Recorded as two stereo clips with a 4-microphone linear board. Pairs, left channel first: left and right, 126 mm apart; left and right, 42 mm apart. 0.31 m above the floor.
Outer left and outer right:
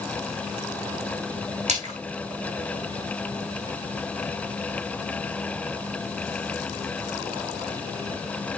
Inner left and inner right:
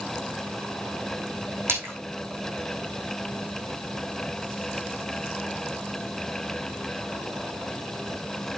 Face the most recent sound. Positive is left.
turn(degrees=-60)  # may be behind; listen again after turning